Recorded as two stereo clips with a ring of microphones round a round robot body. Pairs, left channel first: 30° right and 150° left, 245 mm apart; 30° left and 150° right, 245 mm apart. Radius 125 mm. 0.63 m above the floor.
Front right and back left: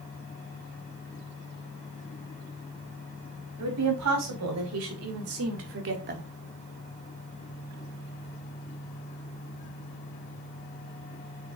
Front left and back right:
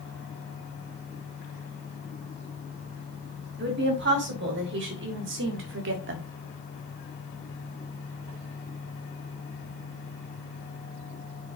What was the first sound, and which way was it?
A woman speaking, 165° left.